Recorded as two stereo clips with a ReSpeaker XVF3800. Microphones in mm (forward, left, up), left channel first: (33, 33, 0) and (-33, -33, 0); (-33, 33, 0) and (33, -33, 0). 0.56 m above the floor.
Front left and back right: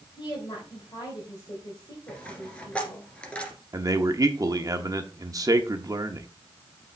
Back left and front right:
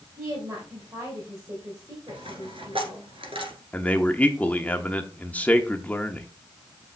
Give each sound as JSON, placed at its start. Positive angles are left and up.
{"t": 0.2, "sound": "a woman speaking", "azimuth_deg": 10, "distance_m": 3.0}
{"t": 2.1, "sound": "a dropped coin", "azimuth_deg": -30, "distance_m": 1.9}
{"t": 3.7, "sound": "a man speaking", "azimuth_deg": -160, "distance_m": 0.9}